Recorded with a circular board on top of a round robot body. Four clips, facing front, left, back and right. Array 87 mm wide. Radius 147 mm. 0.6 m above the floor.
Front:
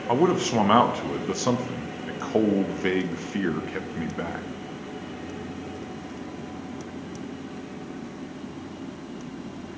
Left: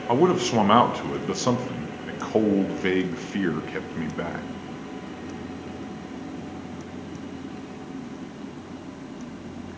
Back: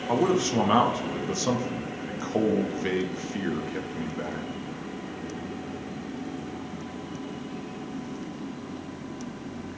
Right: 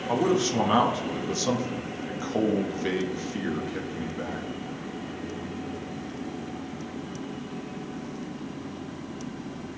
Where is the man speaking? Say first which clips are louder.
Left 4 dB, front 2 dB; 60° left, 0.6 m.